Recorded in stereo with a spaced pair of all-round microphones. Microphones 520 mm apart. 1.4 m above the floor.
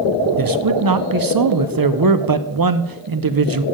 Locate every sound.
0.4 s a man speaking: 45° right (ahead or behind), 0.5 m